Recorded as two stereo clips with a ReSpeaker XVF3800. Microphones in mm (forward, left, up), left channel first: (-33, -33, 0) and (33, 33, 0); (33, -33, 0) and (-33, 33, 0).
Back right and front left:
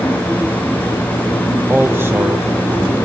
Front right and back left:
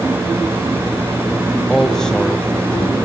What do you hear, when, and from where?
1.7 s a man speaking: 40° left, 1.0 m; by 3.0 s 15° left, 1.3 m